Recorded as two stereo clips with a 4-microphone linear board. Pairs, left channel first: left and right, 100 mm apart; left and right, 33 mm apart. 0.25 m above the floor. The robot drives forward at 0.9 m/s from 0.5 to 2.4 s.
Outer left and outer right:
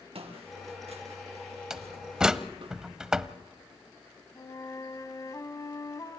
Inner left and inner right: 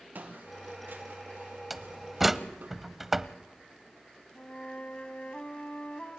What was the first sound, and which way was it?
Footsteps, 70° right (ahead or behind).